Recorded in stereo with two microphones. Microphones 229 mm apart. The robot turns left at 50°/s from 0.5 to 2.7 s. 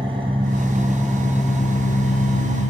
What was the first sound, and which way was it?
An engine running, 155° right.